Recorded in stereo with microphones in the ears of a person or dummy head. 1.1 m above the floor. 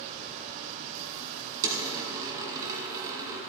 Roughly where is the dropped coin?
Centre.